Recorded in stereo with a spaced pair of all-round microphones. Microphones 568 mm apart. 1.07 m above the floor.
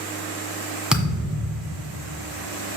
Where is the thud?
Centre (ahead or behind), 1.7 m.